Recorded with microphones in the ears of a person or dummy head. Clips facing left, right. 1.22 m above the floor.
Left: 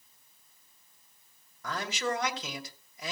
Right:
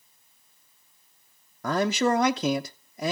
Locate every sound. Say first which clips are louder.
1.6 s a man speaking: right 10 dB; 45° right (ahead or behind), 0.6 m